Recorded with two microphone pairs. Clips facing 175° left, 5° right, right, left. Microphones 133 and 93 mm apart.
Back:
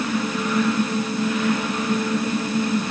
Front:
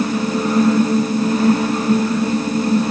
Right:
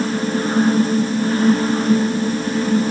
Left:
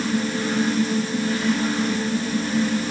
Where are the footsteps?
No footsteps in this recording.